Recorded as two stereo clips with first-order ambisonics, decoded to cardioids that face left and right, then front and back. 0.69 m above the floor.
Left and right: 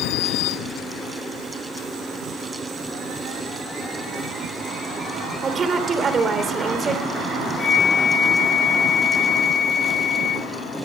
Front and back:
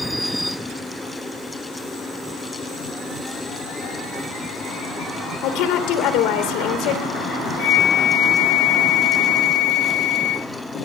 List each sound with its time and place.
5.4 s a woman speaking: 20° right, 2 m
7.6 s a flute: 30° left, 0.6 m